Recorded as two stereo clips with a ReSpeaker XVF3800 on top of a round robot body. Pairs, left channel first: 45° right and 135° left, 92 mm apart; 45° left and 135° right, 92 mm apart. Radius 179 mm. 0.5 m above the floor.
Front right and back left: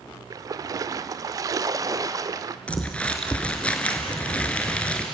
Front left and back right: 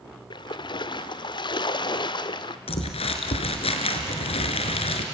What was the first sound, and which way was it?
A splash, 80° left.